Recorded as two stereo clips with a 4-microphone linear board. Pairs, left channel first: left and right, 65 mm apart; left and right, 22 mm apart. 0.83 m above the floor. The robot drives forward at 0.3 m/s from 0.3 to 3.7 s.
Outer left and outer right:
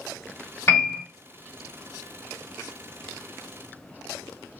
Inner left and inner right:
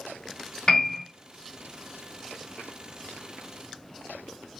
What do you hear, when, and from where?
0.7 s a piano: 35° left (ahead or behind), 1.4 m; by 1.0 s 40° left (ahead or behind), 1.3 m